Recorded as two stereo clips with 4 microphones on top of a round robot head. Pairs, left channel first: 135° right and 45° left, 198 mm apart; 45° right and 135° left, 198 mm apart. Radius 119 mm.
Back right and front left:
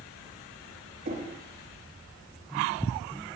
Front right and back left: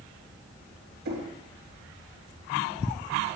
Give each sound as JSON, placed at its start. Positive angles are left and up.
{"t": 1.1, "sound": "knocking", "azimuth_deg": 95, "distance_m": 1.1}